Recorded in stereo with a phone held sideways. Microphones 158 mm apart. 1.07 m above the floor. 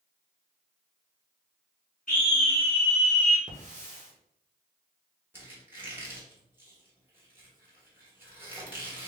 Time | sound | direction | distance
2.1 | a scream | 50° left (ahead or behind) | 1.5 m
3.5 | a hiss | 50° right (ahead or behind) | 0.9 m
5.3 | a squeak | 15° right (ahead or behind) | 1.1 m